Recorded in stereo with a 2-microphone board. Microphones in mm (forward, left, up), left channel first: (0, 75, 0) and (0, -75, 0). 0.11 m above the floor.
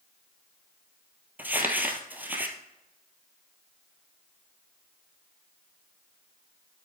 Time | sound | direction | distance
1.4 | crumpling | 10° right (ahead or behind) | 1.4 m